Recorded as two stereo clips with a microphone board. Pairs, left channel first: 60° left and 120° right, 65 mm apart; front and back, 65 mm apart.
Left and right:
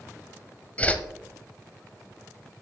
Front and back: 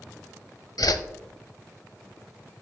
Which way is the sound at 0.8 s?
5° right.